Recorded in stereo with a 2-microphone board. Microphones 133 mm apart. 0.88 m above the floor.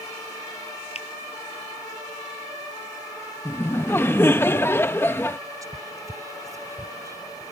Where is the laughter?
15° left (ahead or behind).